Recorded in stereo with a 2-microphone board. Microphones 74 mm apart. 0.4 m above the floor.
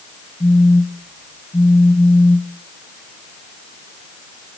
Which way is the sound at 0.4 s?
55° left (ahead or behind).